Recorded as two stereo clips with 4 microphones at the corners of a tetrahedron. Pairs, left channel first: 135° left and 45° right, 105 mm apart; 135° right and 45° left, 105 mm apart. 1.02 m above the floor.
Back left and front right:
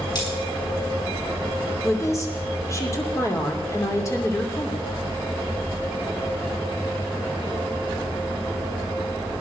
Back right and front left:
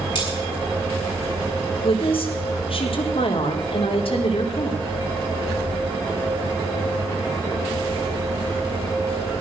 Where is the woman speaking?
165° right, 3 m.